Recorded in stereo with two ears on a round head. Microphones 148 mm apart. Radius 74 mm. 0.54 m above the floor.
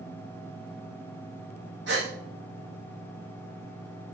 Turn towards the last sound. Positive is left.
turn(degrees=-65)  # may be behind; listen again after turning